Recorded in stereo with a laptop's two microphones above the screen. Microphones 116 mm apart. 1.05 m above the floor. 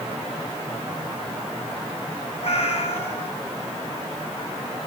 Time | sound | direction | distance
2.4 | a cat meowing | 60° left (ahead or behind) | 1.8 m